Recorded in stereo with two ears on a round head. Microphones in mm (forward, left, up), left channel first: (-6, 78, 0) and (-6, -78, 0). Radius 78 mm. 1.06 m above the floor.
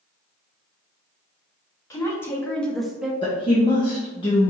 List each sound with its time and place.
1.9 s a woman speaking: 20° left (ahead or behind), 1.5 m; by 3.1 s 10° right (ahead or behind), 0.9 m
3.2 s a woman speaking: 30° left (ahead or behind), 1.0 m